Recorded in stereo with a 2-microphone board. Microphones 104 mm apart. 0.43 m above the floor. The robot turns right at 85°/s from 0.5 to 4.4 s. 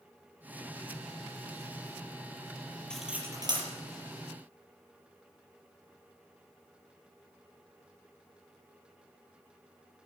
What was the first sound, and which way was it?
Cutlery clinking, 10° left (ahead or behind).